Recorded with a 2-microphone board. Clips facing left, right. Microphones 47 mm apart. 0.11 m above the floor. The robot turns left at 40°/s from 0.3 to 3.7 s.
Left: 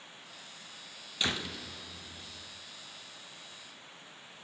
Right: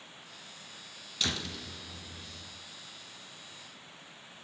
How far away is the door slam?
About 1.1 m.